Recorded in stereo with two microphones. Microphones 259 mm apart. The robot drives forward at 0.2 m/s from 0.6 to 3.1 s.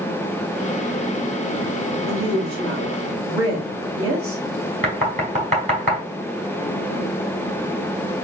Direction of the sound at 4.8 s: 25° right (ahead or behind).